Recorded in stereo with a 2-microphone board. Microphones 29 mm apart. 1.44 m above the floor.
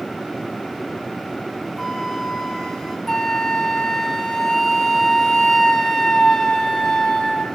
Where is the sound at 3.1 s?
20° left (ahead or behind), 2.5 m.